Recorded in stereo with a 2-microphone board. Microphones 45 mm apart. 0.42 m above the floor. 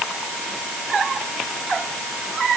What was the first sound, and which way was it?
Only background noise.